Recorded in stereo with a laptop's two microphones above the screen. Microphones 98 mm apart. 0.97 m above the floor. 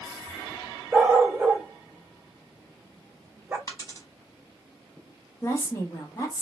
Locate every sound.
0.9 s a dog barking: 20° right (ahead or behind), 0.6 m
3.7 s a dropped coin: 35° left (ahead or behind), 1.1 m
5.4 s a woman speaking: 35° left (ahead or behind), 0.9 m